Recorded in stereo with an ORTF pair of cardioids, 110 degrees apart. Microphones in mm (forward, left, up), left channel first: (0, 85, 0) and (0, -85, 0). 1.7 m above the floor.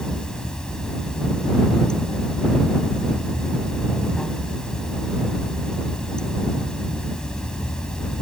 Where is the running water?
5° left.